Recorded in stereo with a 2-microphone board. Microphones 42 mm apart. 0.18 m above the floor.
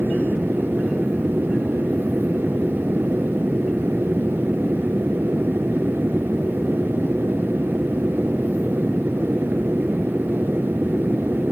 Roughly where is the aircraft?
Right.